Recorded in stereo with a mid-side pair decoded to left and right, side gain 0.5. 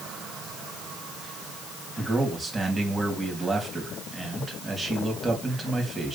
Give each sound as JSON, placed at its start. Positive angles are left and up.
{"t": 2.0, "sound": "a man speaking", "azimuth_deg": -20, "distance_m": 3.5}